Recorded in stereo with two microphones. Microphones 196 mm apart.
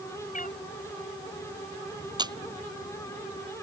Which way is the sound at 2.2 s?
25° right (ahead or behind).